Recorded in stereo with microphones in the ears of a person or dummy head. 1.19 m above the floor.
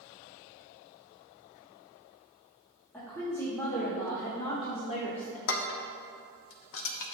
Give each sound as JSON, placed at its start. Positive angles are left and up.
{"t": 2.9, "sound": "a woman speaking", "side_deg": 10, "distance_m": 2.5}
{"t": 5.5, "sound": "dishes clattering", "side_deg": 70, "distance_m": 0.8}